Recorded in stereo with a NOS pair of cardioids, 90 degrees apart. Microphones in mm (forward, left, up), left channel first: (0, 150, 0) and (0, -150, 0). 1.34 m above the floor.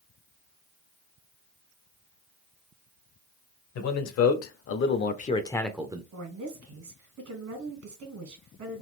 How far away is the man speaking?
About 1.1 m.